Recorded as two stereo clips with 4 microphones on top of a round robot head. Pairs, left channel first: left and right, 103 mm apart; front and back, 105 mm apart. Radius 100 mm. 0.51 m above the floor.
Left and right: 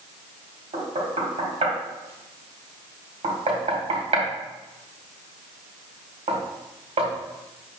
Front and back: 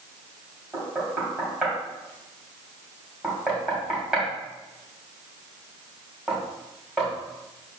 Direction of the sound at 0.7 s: 95° right.